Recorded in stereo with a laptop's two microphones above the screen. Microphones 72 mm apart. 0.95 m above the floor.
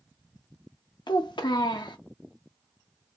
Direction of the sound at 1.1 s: 80° left.